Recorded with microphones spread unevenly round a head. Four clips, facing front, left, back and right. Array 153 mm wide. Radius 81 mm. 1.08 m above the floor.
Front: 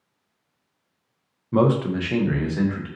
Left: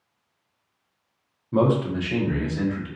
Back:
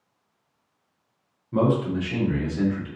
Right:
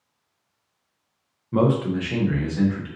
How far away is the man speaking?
About 0.7 m.